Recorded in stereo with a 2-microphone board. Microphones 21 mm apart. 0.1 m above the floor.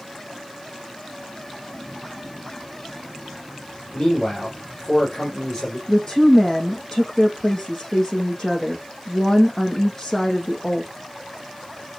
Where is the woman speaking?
30° left (ahead or behind), 4.5 m.